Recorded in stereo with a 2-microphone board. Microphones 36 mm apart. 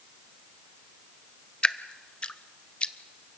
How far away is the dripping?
About 0.6 m.